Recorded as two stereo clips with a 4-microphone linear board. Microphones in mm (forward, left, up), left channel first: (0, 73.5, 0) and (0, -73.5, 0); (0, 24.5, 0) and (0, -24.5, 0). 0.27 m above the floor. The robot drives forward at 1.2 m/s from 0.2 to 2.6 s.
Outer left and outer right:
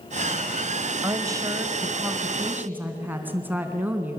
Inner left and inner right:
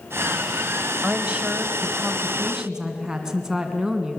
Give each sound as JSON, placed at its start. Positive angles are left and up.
{"t": 1.0, "sound": "a woman speaking", "side_deg": -25, "distance_m": 1.3}